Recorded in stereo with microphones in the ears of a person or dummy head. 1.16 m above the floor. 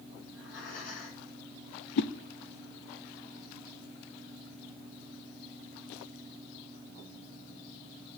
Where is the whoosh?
60° left (ahead or behind), 0.8 m.